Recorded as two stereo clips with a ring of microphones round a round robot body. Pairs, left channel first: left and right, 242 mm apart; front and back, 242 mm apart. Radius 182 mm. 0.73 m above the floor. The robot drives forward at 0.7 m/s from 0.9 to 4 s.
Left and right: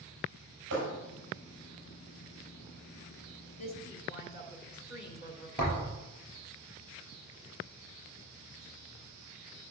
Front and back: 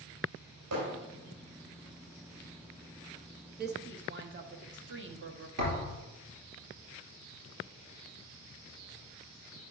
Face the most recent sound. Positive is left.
turn(degrees=175)